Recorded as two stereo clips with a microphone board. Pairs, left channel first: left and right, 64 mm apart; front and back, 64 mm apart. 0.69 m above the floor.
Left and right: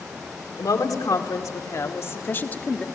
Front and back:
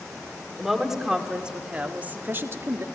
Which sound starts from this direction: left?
A woman speaking, at 0.6 s.